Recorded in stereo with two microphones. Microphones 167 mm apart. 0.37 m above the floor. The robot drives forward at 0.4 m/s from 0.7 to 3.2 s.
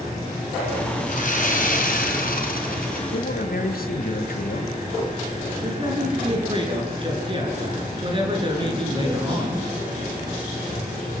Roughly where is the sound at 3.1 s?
Left.